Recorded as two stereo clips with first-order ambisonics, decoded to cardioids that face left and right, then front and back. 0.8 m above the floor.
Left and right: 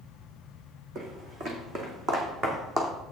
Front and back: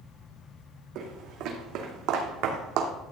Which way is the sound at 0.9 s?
145° right.